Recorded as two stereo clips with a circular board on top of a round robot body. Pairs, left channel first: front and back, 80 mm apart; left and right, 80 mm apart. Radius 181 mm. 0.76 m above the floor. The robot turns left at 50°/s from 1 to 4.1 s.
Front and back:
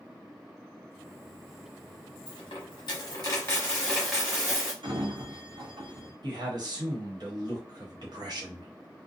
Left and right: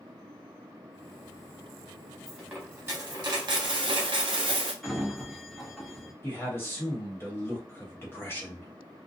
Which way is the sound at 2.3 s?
Straight ahead.